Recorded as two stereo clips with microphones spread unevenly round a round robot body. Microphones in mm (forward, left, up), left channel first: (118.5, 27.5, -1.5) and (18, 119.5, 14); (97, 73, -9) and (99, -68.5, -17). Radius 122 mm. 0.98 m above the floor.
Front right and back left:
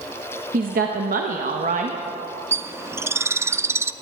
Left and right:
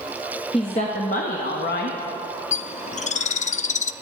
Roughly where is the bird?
Left.